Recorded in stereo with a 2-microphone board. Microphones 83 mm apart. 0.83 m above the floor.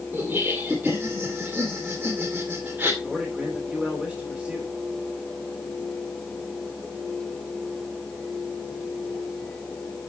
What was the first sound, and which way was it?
Laughter, 20° right (ahead or behind).